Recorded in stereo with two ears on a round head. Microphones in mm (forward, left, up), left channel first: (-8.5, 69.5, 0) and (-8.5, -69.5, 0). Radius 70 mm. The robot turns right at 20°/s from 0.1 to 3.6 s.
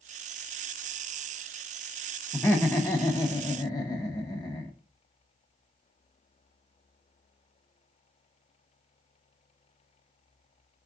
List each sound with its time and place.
2.3 s laughter: 15° left (ahead or behind), 0.7 m; by 4.7 s 25° left (ahead or behind), 0.7 m